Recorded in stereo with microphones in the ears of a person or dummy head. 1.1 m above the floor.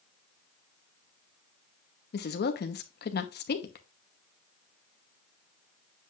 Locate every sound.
2.1 s a woman speaking: 40° left (ahead or behind), 1.0 m